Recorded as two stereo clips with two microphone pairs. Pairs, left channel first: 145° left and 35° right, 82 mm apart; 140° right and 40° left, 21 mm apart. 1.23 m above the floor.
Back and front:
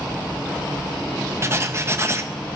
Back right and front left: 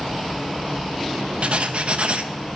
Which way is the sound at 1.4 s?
20° left.